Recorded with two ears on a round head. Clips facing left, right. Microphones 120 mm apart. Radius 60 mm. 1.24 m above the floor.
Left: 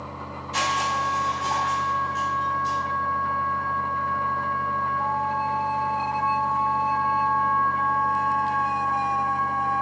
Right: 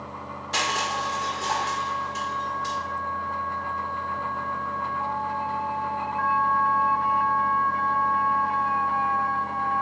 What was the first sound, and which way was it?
Crushing, 70° right (ahead or behind).